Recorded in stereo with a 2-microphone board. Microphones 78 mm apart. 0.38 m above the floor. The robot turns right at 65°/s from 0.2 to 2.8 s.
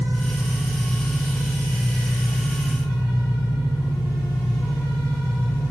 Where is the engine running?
60° right, 1.3 m; by 5.7 s 110° left, 1.3 m.